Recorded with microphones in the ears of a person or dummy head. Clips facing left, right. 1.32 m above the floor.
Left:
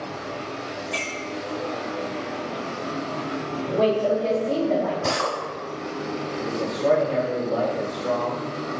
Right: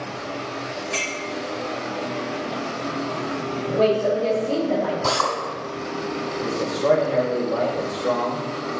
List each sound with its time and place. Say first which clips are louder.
0.9 s a clink: right 2 dB; centre (ahead or behind), 2.5 m
3.7 s a woman speaking: right 1 dB; centre (ahead or behind), 2.5 m
5.0 s a drill: right 1 dB; 10° left (ahead or behind), 1.9 m
6.4 s a man speaking: right 1 dB; 5° right (ahead or behind), 3 m